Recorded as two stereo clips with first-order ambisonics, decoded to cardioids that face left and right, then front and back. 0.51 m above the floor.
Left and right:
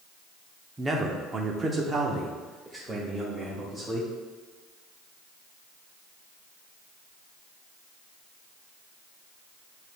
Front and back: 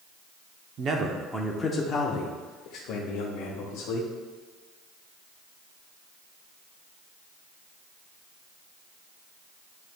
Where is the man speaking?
160° right, 0.8 m; by 4.1 s 10° right, 2 m.